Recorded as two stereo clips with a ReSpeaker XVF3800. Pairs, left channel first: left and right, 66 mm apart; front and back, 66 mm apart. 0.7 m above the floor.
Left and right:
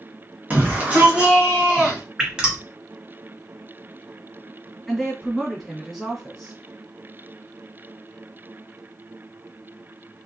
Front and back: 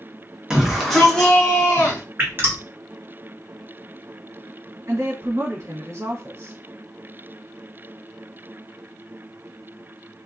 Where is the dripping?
160° right, 0.7 m.